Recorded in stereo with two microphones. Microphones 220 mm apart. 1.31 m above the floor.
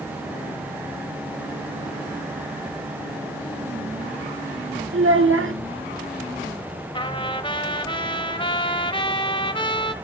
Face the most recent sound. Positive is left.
turn(degrees=25)  # may be behind; listen again after turning